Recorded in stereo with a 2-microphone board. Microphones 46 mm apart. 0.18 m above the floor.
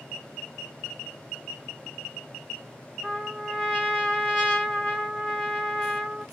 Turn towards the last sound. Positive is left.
turn(degrees=10)  # may be behind; listen again after turning